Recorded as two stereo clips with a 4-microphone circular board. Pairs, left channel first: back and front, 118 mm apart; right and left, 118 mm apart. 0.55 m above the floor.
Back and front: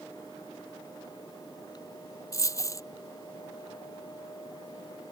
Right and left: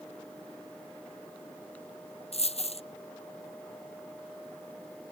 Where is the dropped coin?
115° right.